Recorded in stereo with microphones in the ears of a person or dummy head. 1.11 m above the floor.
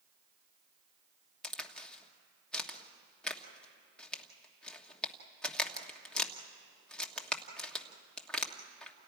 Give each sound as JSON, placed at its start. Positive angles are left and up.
{"t": 1.4, "sound": "a crack", "side_deg": 5, "distance_m": 1.3}